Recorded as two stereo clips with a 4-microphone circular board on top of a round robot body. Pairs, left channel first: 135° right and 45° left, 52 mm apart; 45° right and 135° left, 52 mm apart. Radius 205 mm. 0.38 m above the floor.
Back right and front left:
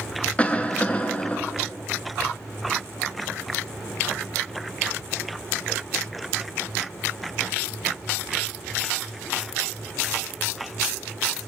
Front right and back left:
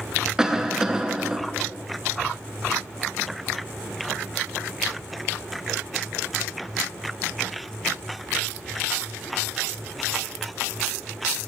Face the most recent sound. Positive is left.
turn(degrees=-160)